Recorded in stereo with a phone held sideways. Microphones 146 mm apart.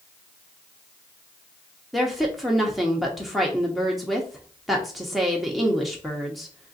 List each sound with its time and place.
1.9 s a woman speaking: centre (ahead or behind), 0.7 m